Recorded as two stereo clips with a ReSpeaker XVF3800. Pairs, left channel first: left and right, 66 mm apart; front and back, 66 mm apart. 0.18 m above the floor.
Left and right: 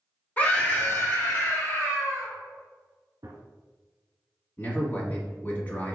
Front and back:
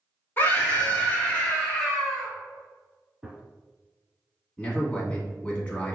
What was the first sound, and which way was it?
A scream, 35° left.